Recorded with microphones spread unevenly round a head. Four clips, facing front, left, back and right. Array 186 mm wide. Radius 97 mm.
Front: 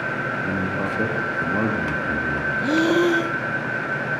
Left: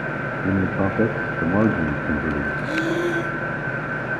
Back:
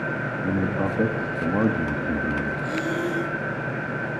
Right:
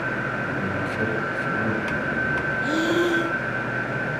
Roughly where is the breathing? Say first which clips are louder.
Right 2 dB, front 8 dB; ahead.